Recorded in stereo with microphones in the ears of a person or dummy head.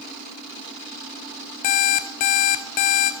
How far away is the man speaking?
I don't hear a man speaking.